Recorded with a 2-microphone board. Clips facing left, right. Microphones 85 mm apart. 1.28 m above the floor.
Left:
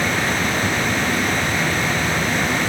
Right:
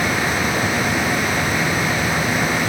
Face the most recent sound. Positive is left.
No sound to turn to.